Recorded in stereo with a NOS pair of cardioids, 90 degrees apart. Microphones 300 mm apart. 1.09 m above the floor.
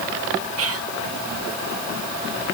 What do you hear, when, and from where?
0.6 s whispering: 50° right, 0.6 m